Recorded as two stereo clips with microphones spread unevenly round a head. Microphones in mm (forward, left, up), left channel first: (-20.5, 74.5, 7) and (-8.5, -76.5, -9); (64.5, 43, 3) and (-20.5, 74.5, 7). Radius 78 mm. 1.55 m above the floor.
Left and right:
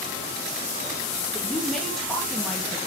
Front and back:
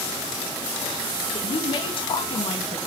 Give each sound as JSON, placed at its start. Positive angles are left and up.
{"t": 1.3, "sound": "a woman speaking", "azimuth_deg": 5, "distance_m": 2.5}